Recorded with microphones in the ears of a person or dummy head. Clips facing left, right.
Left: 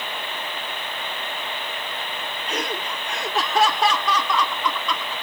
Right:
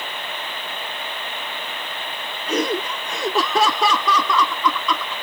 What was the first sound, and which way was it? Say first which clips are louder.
Laughter: right 8 dB; 65° right (ahead or behind).